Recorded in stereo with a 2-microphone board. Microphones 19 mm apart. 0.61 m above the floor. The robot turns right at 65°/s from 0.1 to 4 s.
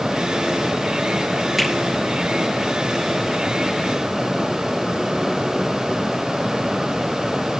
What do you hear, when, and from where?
1.6 s a finger snap: 5° right (ahead or behind), 7.5 m; by 1.7 s 5° left (ahead or behind), 7.5 m